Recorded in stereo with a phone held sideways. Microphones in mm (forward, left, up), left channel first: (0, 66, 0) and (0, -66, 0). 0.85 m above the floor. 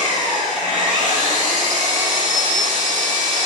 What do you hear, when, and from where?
0.0 s an engine running: 70° left (ahead or behind), 5 m